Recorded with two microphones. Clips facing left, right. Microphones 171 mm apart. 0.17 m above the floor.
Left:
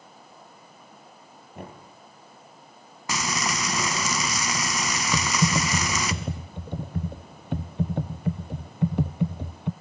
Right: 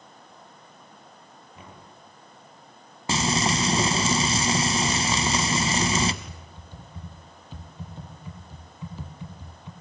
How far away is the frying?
About 1.2 m.